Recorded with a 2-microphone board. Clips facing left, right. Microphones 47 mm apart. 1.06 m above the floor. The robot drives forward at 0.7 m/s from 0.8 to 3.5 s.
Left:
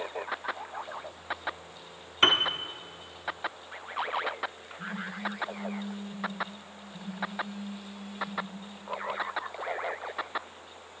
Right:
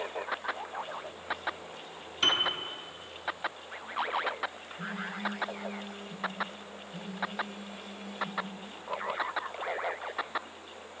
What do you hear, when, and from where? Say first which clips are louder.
2.2 s a piano: left 4 dB; 45° left (ahead or behind), 0.9 m; by 2.5 s 35° left (ahead or behind), 1.0 m
4.8 s a phone buzzing: even; 80° right, 3 m